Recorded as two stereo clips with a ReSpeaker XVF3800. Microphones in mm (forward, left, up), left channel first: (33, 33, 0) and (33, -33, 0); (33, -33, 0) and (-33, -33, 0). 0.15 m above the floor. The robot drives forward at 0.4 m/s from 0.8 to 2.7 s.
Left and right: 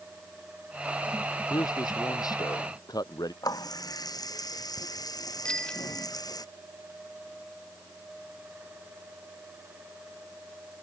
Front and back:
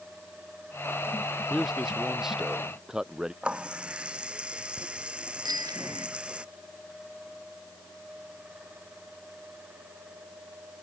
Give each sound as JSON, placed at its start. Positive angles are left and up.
{"t": 1.5, "sound": "a man speaking", "azimuth_deg": 90}
{"t": 3.4, "sound": "a running tap", "azimuth_deg": 105}
{"t": 5.5, "sound": "a bicycle bell", "azimuth_deg": 165}